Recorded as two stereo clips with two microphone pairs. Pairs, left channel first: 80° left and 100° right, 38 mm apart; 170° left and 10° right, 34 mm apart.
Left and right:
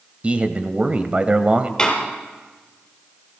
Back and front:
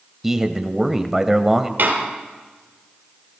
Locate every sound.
0.2 s a man speaking: 75° right, 1.2 m
1.8 s a door slam: 10° left, 4 m